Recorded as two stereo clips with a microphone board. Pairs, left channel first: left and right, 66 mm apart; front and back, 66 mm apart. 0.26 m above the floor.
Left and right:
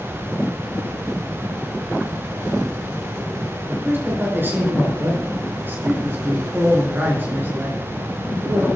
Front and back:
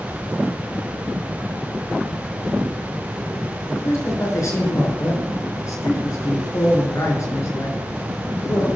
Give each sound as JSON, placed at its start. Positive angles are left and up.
{"t": 3.7, "sound": "a man speaking", "azimuth_deg": -35, "distance_m": 4.0}